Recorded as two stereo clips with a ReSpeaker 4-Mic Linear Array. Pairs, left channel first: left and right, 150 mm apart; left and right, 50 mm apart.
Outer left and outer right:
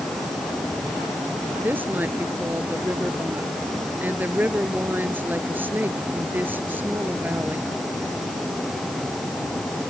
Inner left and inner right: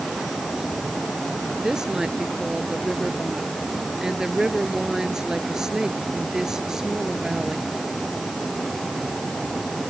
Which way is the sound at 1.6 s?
10° right (ahead or behind).